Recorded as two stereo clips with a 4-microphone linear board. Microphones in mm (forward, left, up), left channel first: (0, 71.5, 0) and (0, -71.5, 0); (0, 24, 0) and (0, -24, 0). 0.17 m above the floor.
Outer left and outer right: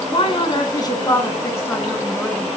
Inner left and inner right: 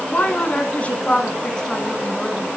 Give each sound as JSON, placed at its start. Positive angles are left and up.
{"t": 0.1, "sound": "a woman speaking", "side_deg": 40, "distance_m": 1.7}